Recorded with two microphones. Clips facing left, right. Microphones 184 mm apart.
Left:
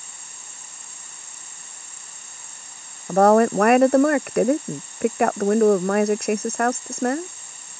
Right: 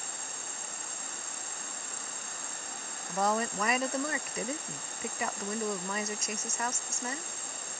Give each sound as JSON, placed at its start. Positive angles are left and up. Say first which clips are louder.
{"t": 0.0, "sound": "an insect", "louder": "right 5 dB", "side_deg": -60}
{"t": 3.1, "sound": "a woman speaking", "louder": "left 16 dB", "side_deg": 65}